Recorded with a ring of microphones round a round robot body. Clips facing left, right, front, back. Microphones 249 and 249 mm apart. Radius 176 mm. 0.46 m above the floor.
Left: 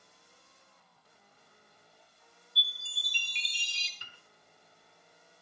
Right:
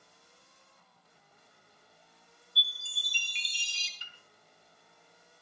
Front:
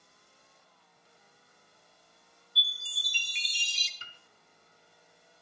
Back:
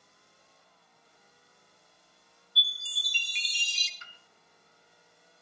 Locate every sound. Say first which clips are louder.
2.6 s a chime: right 1 dB, back 1 dB; 150° right, 1.0 m
4.0 s a piano: left 2 dB, front 1 dB; 55° left, 3.5 m